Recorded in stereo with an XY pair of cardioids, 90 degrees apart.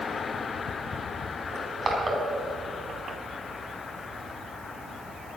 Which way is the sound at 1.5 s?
40° right.